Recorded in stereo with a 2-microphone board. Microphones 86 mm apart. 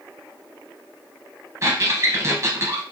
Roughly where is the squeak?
Right.